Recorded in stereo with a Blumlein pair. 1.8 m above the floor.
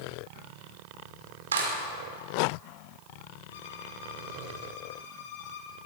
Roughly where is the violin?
Ahead left.